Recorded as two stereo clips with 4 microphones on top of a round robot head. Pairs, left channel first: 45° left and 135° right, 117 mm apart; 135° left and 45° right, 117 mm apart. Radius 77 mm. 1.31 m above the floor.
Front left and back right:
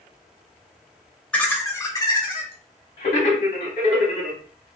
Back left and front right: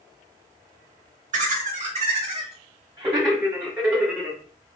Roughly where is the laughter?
Ahead right.